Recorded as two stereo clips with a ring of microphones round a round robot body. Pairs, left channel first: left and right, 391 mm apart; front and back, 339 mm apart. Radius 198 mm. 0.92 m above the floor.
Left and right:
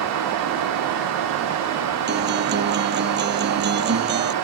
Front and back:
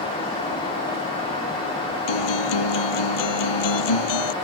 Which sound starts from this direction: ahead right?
A guitar, at 2.1 s.